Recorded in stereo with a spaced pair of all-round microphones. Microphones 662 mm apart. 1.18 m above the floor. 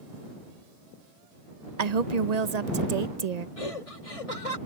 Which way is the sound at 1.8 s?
70° right (ahead or behind).